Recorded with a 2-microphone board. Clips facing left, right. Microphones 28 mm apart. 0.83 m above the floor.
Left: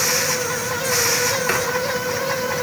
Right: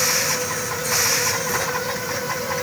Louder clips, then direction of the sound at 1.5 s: Left 4 dB; 55° left (ahead or behind).